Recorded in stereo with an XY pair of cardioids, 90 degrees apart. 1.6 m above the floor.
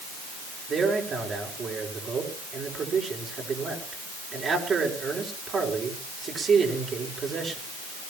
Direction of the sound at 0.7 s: 55° right.